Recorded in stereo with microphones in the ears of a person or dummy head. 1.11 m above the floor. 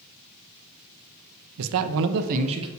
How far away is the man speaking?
About 0.6 m.